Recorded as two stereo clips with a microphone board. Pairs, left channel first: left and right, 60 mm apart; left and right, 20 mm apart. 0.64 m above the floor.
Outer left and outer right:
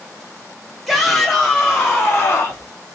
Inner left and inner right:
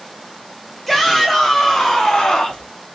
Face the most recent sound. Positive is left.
turn(degrees=50)  # may be behind; listen again after turning